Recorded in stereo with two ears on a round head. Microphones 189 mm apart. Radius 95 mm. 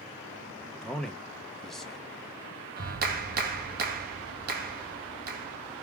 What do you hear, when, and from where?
0.8 s a man speaking: centre (ahead or behind), 1.0 m
2.8 s a clap: 45° right (ahead or behind), 1.4 m